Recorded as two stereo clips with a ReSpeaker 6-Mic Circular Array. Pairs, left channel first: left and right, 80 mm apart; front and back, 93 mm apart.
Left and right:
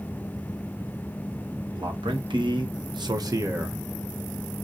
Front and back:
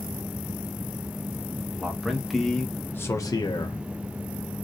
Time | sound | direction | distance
1.7 | a man speaking | 100° right | 1.4 m